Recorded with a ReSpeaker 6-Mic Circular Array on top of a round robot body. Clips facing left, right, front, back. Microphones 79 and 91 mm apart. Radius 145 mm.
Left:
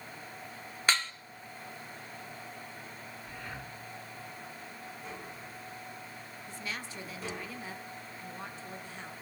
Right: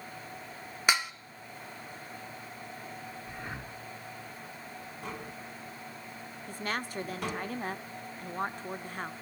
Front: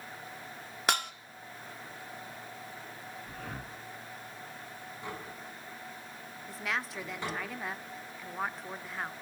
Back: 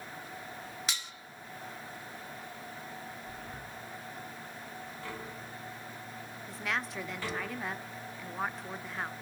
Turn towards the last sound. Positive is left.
turn(degrees=-90)